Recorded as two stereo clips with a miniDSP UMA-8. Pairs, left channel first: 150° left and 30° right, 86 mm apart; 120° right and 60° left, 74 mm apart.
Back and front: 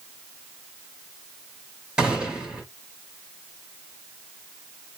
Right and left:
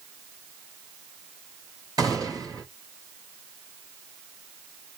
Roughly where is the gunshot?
Ahead left.